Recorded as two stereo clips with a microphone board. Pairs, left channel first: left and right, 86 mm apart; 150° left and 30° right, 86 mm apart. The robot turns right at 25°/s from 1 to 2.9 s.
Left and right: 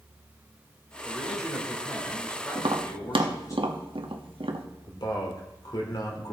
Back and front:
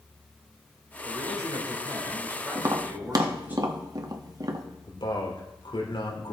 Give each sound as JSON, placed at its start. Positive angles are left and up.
{"t": 1.0, "sound": "a man speaking", "azimuth_deg": -10, "distance_m": 4.0}
{"t": 2.5, "sound": "tapping", "azimuth_deg": -80, "distance_m": 1.2}
{"t": 4.9, "sound": "a man speaking", "azimuth_deg": 130, "distance_m": 2.5}